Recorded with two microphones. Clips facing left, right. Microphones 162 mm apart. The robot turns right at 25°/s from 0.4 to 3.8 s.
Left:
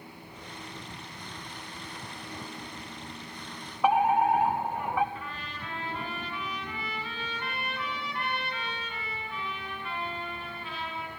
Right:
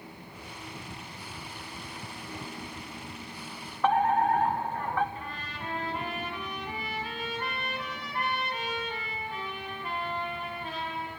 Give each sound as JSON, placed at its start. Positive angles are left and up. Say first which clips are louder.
{"t": 3.8, "sound": "a fire alarm", "louder": "left 1 dB", "side_deg": 10, "distance_m": 1.8}
{"t": 5.2, "sound": "a trumpet", "louder": "right 1 dB", "side_deg": -40, "distance_m": 7.0}